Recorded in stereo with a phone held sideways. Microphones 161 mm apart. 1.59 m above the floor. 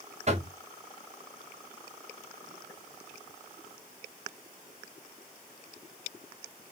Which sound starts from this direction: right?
Knocking, at 0.3 s.